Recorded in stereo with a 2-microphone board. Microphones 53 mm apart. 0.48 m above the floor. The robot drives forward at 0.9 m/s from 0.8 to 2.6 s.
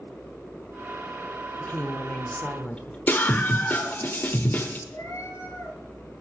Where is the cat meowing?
70° left (ahead or behind), 5 m.